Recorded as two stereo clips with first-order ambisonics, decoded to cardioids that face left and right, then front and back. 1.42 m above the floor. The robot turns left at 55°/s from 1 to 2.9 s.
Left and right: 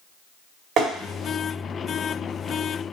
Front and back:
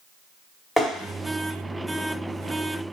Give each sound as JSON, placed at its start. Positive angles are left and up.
{"t": 0.8, "sound": "tapping", "azimuth_deg": -80, "distance_m": 1.3}